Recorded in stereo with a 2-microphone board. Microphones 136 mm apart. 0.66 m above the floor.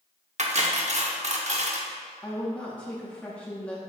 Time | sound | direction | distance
0.4 | cutlery clinking | 55° right (ahead or behind) | 0.9 m
2.2 | a woman speaking | 10° left (ahead or behind) | 0.9 m